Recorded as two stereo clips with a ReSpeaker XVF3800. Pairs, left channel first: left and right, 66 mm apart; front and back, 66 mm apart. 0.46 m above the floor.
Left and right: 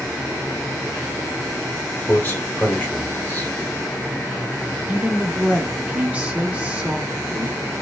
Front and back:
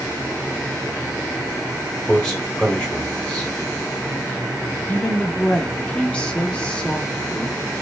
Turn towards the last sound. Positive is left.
turn(degrees=-50)